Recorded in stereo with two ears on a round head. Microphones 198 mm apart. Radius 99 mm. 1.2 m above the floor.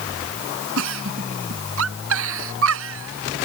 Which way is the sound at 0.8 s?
70° right (ahead or behind).